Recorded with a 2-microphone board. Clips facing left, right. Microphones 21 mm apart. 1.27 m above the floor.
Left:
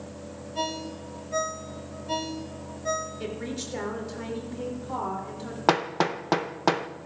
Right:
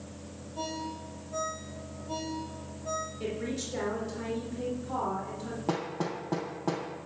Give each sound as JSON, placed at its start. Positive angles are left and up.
{"t": 0.6, "sound": "a ringtone", "side_deg": 75, "distance_m": 3.0}
{"t": 3.2, "sound": "a woman speaking", "side_deg": 20, "distance_m": 3.0}
{"t": 5.7, "sound": "hammering", "side_deg": 75, "distance_m": 0.6}